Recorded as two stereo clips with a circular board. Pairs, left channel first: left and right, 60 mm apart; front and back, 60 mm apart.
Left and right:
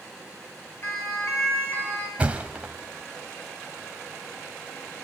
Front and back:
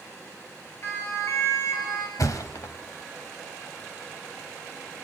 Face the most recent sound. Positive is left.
turn(degrees=-20)